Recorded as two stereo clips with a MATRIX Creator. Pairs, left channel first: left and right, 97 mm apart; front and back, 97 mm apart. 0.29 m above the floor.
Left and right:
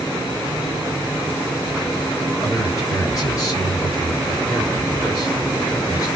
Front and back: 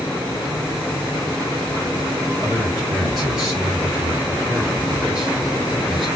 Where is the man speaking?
95° left, 1.8 m.